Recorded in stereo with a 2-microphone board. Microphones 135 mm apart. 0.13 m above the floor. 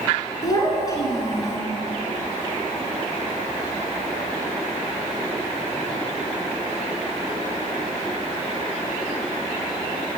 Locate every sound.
0.4 s a child speaking: 30° left (ahead or behind), 1.3 m